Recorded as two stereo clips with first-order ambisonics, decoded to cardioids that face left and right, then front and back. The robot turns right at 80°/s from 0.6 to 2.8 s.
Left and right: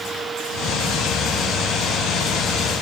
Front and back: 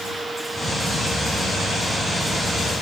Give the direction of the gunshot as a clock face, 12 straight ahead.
No gunshot in this recording.